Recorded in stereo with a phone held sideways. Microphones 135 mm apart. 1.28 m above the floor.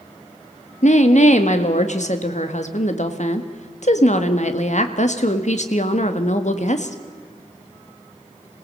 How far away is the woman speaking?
About 1.6 m.